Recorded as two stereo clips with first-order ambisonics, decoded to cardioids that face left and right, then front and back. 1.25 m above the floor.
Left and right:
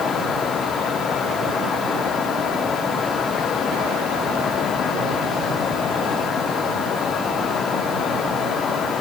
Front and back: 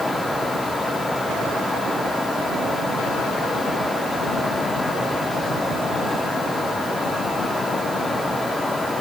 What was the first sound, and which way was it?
Only background noise.